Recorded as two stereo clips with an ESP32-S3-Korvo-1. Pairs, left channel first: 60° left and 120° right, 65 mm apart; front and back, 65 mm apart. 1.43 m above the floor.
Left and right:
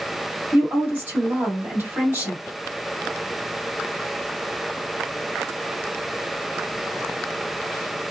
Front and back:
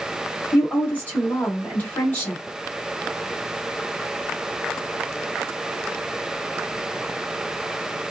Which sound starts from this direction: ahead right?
A woman speaking, at 0.5 s.